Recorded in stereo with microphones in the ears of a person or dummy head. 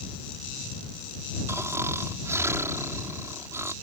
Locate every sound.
1.5 s snoring: 15° right (ahead or behind)